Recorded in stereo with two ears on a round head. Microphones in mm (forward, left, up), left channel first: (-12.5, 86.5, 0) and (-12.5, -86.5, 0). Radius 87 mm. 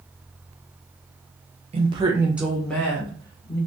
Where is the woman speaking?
30° right (ahead or behind), 0.6 m; by 3.6 s 20° left (ahead or behind), 1.1 m.